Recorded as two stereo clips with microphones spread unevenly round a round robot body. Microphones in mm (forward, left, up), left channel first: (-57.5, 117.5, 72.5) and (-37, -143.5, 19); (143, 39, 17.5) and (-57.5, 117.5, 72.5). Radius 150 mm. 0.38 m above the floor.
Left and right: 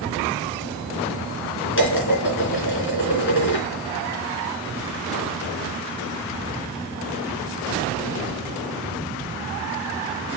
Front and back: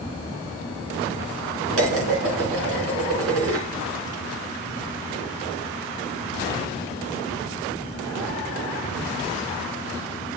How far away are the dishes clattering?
About 4 m.